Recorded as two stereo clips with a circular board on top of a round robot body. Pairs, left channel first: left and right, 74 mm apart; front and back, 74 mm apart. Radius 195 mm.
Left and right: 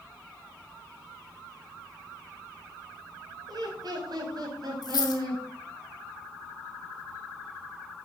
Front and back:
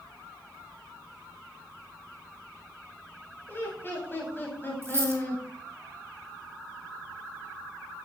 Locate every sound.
3.5 s laughter: 65° right, 3.5 m
4.8 s a dropped coin: 120° left, 1.8 m